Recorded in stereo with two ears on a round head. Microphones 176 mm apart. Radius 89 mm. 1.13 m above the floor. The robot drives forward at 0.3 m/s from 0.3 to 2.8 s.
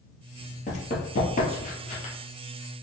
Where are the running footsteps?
40° left (ahead or behind), 1.5 m; by 2.1 s 35° left (ahead or behind), 1.5 m.